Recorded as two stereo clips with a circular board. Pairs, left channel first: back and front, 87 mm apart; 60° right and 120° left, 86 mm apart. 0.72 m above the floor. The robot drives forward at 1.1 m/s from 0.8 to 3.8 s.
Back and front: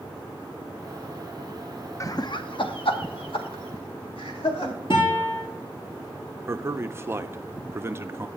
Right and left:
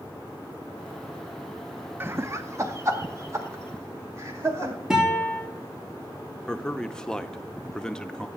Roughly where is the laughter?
Behind.